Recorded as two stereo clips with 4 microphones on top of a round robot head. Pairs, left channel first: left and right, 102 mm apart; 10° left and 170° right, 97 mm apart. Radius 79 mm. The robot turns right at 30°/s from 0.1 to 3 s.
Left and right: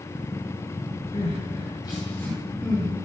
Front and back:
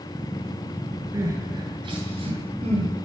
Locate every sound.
1.1 s crying: 130° left, 9.5 m; by 2.9 s 175° right, 9.5 m